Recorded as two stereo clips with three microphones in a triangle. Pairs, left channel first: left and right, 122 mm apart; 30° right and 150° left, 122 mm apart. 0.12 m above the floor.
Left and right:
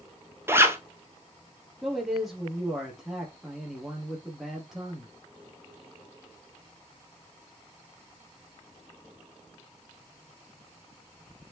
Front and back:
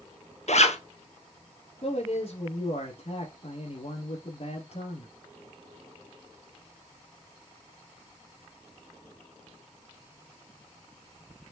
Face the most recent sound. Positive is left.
turn(degrees=0)